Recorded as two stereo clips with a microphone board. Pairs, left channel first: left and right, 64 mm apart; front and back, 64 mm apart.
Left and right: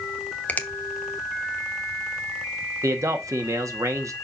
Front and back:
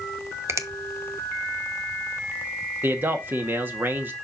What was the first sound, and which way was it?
A finger snap, 150° left.